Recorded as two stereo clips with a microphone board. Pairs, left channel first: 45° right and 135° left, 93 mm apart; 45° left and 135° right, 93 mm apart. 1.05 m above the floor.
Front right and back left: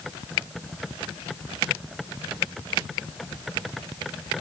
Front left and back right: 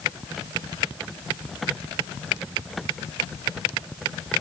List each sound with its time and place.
Only background noise.